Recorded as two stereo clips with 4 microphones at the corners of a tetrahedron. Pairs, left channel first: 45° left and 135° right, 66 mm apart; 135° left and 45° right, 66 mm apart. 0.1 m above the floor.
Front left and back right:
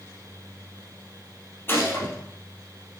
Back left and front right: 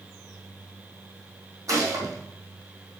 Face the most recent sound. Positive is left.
turn(degrees=-10)